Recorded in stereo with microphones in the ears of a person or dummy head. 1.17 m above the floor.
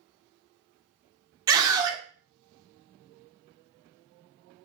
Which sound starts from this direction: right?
A scream, at 1.5 s.